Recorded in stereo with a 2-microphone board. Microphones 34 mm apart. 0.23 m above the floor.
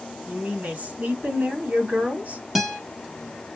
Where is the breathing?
No breathing in this recording.